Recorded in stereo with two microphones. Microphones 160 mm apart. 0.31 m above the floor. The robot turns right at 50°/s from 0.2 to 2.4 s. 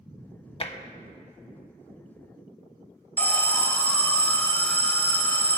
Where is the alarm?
10° left (ahead or behind), 1.2 m.